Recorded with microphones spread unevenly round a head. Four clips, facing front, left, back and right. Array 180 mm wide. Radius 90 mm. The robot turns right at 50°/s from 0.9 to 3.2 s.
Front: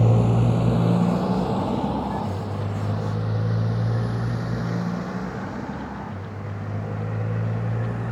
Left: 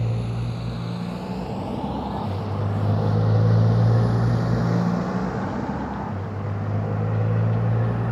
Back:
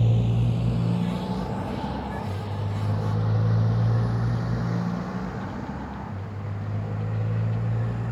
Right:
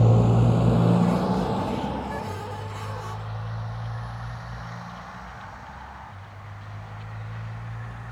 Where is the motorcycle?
25° right; by 8.1 s 55° left.